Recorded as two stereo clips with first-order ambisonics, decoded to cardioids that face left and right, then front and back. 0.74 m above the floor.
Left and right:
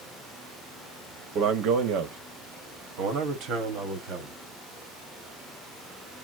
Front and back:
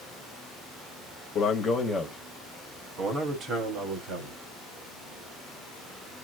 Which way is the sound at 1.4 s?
55° right.